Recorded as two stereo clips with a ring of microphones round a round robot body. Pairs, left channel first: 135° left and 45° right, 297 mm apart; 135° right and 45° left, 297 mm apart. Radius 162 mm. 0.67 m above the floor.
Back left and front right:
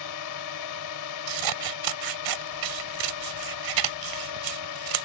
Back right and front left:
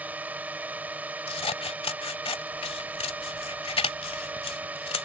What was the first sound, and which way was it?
A drone, 130° left.